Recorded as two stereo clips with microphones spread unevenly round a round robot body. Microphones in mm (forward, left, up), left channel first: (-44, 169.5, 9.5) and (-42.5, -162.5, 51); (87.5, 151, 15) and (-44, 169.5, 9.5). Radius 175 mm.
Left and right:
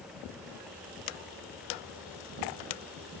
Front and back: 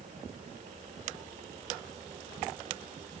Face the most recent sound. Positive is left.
No sound to turn to.